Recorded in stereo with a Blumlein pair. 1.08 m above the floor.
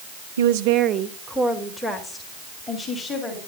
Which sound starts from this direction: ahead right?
A woman speaking, at 0.4 s.